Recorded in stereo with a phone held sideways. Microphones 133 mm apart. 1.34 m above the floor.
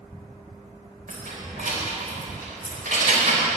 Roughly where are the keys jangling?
Right.